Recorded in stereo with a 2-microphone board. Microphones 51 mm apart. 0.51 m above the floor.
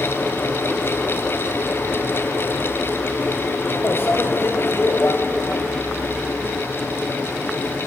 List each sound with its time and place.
3.8 s a microwave: 55° left (ahead or behind), 1.6 m